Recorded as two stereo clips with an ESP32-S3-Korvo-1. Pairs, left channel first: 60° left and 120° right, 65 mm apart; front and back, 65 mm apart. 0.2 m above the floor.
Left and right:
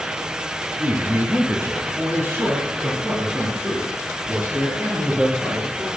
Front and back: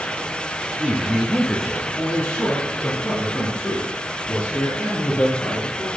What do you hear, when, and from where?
0.8 s a man speaking: 140° right, 1.2 m; by 5.9 s 60° right, 6 m